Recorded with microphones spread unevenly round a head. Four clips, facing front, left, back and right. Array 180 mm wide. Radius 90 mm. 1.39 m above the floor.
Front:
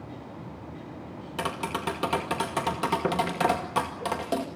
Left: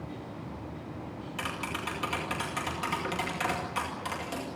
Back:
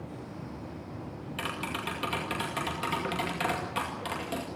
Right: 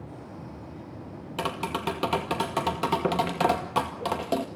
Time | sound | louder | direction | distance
1.4 | tapping | right 7 dB, front 6 dB | 60° right | 2.0 m